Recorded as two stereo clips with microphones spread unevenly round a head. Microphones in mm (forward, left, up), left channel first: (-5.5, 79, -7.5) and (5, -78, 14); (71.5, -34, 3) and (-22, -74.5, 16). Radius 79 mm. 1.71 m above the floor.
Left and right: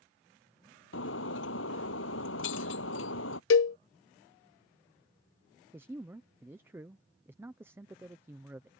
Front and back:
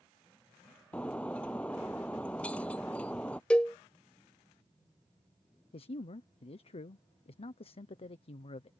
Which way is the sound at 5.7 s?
10° right.